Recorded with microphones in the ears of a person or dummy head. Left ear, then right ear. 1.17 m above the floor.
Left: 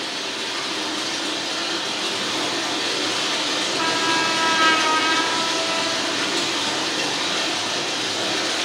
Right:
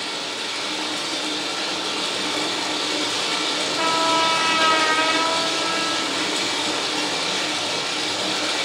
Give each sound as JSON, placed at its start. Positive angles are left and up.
{"t": 0.0, "sound": "running water", "side_deg": -35, "distance_m": 1.1}
{"t": 3.8, "sound": "a trumpet", "side_deg": -50, "distance_m": 0.7}